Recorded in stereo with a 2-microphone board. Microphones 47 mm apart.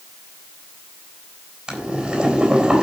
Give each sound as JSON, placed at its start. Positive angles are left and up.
{"t": 1.7, "sound": "boiling", "side_deg": -15, "distance_m": 4.0}